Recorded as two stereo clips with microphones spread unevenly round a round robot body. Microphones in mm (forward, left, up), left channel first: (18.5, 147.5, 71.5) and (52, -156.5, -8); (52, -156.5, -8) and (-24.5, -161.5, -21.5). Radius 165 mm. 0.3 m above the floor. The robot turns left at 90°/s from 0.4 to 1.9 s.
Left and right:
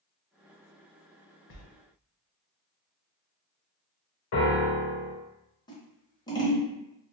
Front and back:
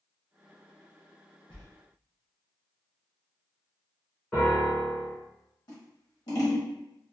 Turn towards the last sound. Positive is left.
turn(degrees=10)